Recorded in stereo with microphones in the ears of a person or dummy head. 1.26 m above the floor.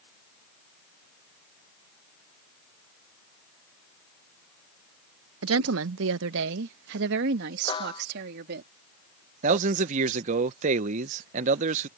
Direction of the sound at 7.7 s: 30° left (ahead or behind).